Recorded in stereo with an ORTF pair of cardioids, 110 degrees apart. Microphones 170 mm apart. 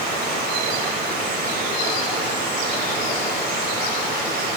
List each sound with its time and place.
0.0 s running water: 65° right, 3.5 m